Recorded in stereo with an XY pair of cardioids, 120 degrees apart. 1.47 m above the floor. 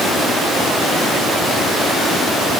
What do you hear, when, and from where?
Only background noise.